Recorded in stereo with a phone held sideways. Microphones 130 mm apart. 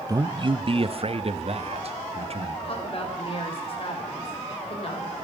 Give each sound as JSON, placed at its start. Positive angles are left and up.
{"t": 0.1, "sound": "a man speaking", "side_deg": -30, "distance_m": 0.6}
{"t": 2.6, "sound": "a woman speaking", "side_deg": 45, "distance_m": 4.5}